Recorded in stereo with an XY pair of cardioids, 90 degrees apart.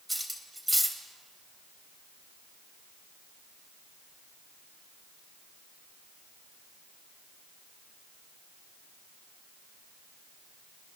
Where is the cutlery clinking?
5° right, 3 m.